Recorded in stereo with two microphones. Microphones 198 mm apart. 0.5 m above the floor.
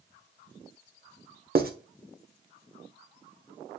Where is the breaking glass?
I don't hear breaking glass.